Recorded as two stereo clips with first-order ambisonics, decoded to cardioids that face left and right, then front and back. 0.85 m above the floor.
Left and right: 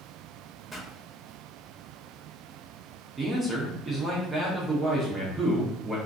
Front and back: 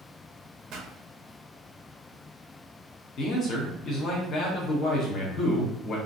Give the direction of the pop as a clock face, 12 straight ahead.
6 o'clock.